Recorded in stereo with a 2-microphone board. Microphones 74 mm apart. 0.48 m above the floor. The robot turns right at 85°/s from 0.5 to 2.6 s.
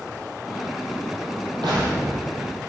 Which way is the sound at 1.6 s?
95° right.